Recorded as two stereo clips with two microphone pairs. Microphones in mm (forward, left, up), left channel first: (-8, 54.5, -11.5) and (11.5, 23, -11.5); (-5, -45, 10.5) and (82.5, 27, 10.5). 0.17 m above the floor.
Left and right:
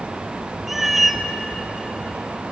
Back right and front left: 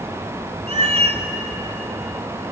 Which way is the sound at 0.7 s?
25° left.